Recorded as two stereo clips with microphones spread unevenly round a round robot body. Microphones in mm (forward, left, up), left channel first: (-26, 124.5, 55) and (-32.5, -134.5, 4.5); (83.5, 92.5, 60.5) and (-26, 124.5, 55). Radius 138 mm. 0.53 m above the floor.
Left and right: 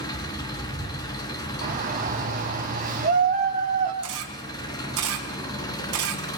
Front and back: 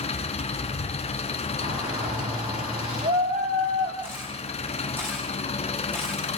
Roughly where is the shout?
Behind right.